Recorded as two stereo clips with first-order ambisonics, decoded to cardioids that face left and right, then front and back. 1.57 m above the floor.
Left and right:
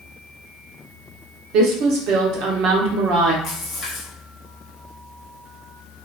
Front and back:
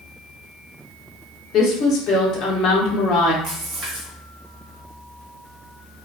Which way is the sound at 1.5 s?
50° right.